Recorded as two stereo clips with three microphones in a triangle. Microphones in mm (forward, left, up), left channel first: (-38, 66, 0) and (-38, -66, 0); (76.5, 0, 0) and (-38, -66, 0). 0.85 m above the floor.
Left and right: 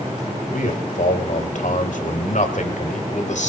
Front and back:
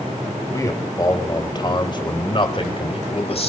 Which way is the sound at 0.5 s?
95° left.